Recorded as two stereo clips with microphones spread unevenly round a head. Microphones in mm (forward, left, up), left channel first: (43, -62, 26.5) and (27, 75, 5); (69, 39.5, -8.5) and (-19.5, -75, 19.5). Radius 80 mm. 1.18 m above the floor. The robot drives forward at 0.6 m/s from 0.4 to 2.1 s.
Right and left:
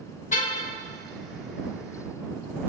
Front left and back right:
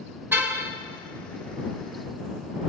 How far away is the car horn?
About 2.5 m.